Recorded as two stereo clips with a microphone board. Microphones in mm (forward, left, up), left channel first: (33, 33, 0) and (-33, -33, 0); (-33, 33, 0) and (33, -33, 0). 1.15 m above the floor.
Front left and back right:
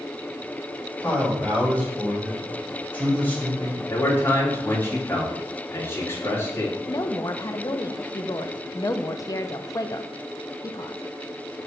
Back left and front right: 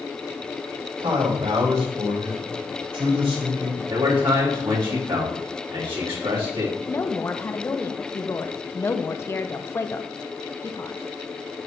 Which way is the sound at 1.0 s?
25° right.